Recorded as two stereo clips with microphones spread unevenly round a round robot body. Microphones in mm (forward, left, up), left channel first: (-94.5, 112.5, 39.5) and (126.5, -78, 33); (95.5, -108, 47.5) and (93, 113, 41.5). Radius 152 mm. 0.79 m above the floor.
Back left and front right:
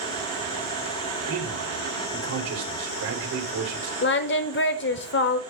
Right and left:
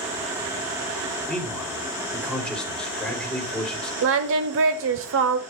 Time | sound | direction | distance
1.3 | a man speaking | 5° right | 3 m
4.0 | singing | 95° left | 0.7 m